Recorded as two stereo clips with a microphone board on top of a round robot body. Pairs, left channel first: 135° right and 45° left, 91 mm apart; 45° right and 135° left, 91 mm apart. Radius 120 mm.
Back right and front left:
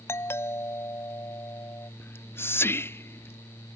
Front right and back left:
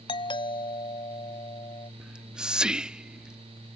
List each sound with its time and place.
0.1 s a doorbell: 75° right
2.0 s whispering: 155° right